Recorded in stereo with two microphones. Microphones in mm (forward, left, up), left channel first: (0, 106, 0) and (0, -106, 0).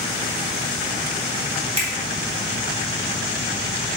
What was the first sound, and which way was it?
A finger snap, 30° right (ahead or behind).